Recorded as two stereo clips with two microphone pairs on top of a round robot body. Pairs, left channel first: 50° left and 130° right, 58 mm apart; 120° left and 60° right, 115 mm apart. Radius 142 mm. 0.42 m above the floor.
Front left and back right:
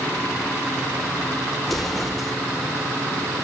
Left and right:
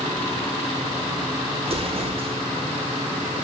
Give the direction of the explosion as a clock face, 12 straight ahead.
1 o'clock.